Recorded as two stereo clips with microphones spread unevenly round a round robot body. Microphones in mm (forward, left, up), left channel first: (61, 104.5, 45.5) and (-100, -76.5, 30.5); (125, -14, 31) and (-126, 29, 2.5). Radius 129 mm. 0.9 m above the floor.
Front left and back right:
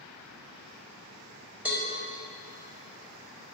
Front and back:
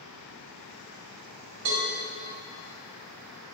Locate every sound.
1.6 s a cowbell: 145° left, 4 m